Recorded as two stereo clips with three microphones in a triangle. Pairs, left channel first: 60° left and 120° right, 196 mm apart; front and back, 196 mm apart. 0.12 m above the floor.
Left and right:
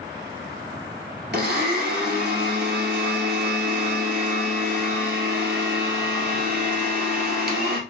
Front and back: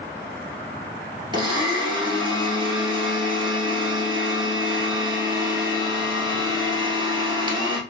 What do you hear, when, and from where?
1.3 s a blender: 120° right, 1.4 m